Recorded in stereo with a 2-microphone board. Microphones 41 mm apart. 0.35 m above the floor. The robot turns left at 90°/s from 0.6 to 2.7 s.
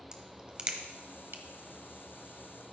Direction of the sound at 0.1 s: 20° right (ahead or behind).